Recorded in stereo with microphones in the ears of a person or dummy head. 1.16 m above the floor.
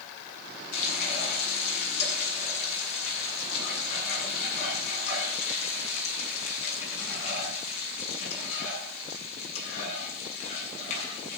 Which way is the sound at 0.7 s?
40° left (ahead or behind).